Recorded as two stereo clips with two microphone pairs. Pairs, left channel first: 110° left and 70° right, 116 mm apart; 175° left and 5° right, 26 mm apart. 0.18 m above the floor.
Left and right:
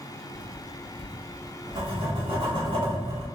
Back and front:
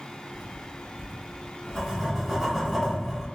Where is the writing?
75° right, 1.3 m.